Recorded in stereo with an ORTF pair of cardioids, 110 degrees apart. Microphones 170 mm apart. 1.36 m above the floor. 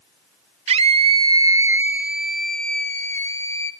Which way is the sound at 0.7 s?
40° right.